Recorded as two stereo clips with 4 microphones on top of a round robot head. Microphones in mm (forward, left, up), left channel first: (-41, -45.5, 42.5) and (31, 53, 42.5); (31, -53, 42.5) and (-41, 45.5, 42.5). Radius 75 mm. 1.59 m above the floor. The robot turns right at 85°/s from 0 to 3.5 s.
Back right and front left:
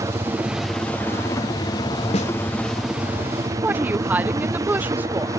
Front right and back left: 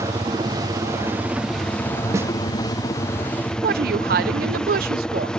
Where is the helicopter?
85° left; by 5.4 s 25° left.